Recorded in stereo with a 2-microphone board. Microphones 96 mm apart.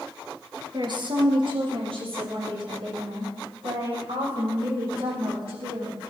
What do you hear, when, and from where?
0.7 s a woman speaking: 50° right (ahead or behind), 3 m; by 5.9 s 80° right, 10 m